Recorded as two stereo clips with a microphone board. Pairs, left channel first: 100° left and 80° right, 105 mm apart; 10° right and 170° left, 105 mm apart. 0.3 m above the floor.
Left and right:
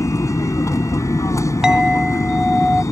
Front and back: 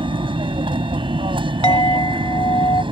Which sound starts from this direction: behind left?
An aircraft, at 0.0 s.